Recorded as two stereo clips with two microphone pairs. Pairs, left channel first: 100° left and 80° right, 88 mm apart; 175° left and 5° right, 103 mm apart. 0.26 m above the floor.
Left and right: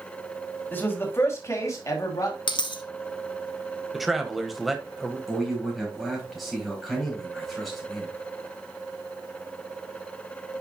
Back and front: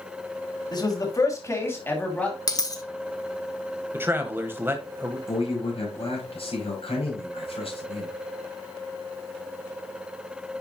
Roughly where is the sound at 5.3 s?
Behind.